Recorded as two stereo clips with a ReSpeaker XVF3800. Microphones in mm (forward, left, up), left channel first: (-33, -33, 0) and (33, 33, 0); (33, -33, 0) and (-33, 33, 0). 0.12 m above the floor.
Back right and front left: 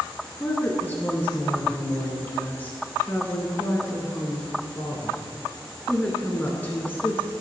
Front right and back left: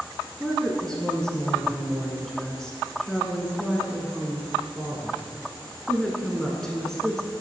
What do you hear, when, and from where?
0.4 s a woman speaking: 120° right, 1.1 m